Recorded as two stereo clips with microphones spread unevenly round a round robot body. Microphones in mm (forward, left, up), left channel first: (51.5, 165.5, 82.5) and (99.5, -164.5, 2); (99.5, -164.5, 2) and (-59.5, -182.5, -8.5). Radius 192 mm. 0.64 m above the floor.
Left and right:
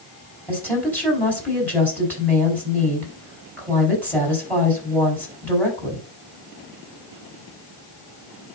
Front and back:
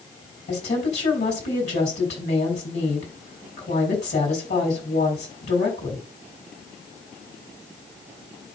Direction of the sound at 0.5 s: 10° left.